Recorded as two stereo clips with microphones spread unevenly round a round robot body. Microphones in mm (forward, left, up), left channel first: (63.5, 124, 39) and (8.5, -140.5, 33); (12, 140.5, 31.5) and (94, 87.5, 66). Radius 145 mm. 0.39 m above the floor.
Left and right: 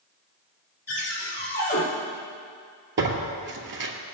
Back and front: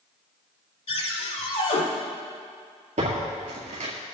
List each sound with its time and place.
0.9 s a cupboard door: 135° left, 4.5 m
3.0 s tearing paper: 50° right, 1.9 m